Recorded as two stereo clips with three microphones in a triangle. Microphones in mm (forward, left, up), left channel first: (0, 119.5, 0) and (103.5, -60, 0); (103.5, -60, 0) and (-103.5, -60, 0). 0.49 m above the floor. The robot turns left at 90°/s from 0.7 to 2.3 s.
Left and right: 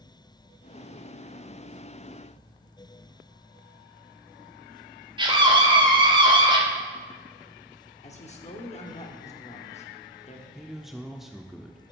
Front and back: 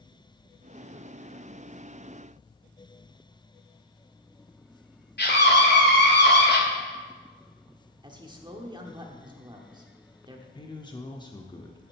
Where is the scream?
Straight ahead, 2 m.